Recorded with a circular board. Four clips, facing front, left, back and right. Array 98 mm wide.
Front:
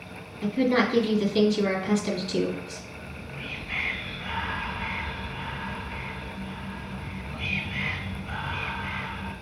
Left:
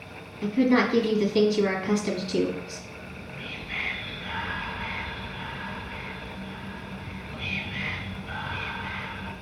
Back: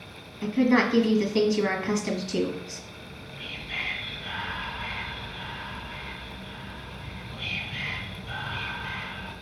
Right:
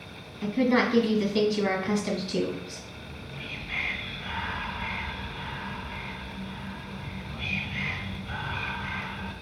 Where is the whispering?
10° right, 1.5 m.